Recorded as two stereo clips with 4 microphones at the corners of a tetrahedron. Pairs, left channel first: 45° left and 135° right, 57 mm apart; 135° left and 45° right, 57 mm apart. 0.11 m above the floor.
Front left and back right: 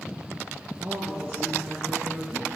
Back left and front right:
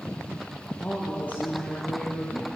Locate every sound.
0.8 s a woman speaking: 170° right, 1.7 m; by 2.5 s 175° right, 2.5 m